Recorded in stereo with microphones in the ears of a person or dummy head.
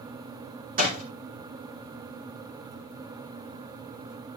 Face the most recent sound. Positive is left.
turn(degrees=-45)  # may be behind; listen again after turning